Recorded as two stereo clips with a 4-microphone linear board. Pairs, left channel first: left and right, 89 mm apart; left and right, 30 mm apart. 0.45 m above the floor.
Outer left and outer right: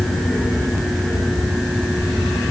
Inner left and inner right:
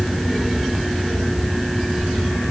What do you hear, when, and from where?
Only background noise.